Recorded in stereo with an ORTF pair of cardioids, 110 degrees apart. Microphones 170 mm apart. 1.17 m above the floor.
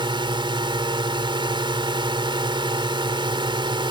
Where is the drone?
25° right.